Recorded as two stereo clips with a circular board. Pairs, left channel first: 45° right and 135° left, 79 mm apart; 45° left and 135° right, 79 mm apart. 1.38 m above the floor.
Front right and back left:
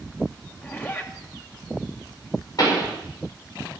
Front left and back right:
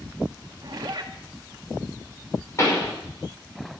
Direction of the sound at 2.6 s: 5° right.